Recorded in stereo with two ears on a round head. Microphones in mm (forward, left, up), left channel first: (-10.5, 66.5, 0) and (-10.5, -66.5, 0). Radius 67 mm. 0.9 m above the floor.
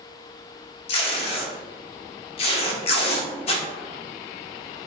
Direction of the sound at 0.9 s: 40° left (ahead or behind).